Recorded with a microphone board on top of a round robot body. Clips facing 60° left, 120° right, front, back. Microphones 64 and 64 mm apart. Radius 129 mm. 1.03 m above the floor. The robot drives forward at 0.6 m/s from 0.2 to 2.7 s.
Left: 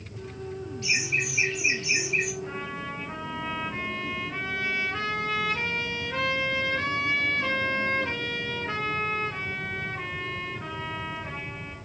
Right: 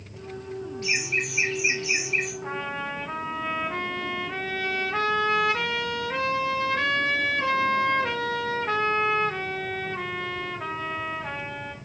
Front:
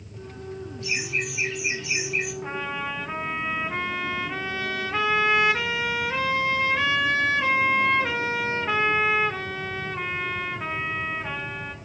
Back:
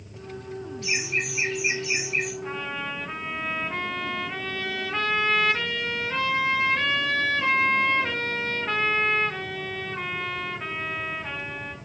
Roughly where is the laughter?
Behind.